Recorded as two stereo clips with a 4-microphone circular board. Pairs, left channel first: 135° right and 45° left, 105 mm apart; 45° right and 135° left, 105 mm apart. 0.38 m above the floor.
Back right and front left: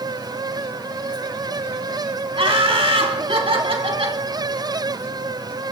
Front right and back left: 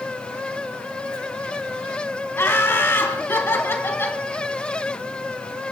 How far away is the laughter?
About 3 m.